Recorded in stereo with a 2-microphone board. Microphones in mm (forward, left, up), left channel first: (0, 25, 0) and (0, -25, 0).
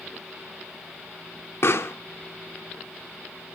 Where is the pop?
55° left (ahead or behind), 1.3 m.